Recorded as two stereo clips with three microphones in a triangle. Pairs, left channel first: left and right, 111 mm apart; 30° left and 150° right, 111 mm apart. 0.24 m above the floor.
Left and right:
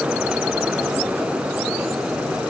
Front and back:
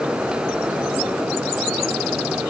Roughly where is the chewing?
I don't hear chewing.